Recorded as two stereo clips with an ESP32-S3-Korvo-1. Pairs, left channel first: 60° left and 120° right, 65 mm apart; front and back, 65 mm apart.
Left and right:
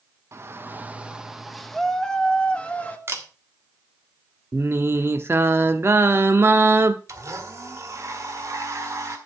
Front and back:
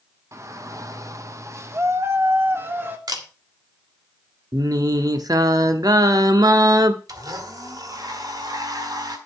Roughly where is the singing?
Behind.